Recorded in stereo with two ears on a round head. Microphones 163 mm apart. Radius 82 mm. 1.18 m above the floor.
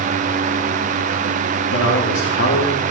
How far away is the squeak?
I don't hear a squeak.